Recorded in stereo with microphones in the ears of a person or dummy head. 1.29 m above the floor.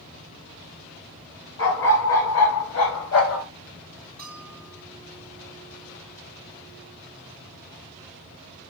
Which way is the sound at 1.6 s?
80° left.